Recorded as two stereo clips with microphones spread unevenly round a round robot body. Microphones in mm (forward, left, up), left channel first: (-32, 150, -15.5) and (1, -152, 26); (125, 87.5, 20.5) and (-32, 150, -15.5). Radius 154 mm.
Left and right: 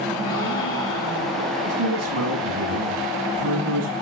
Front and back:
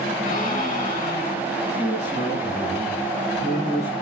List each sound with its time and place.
0.2 s a gasp: 20° left, 5 m
1.6 s a man speaking: 125° right, 7.5 m